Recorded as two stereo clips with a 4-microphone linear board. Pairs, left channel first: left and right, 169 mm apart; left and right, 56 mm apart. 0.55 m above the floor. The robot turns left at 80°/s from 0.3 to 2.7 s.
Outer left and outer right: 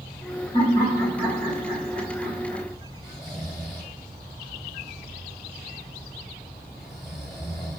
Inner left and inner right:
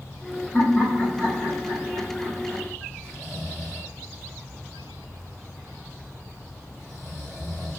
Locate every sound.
0.5 s laughter: 35° left, 3 m; by 2.6 s 135° right, 3 m
3.0 s snoring: centre (ahead or behind), 1.9 m